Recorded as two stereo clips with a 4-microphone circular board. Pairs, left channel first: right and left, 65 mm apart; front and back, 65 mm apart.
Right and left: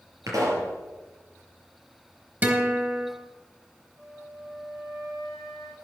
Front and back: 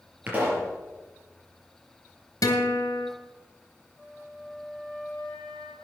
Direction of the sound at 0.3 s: 115° left.